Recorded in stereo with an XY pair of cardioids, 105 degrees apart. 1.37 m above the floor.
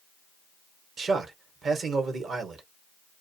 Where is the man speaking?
50° right, 1.1 m.